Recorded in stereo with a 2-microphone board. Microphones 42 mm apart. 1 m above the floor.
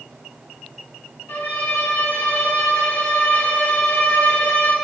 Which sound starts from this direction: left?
A violin, at 1.3 s.